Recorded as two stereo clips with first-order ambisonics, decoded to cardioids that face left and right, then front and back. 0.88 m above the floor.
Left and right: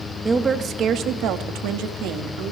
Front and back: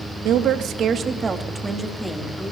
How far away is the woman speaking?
About 1.0 m.